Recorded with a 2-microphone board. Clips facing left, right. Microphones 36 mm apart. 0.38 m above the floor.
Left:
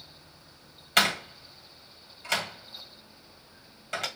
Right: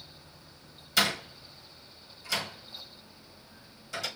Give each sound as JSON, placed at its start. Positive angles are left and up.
{"t": 1.0, "sound": "a door slam", "side_deg": 60, "distance_m": 1.8}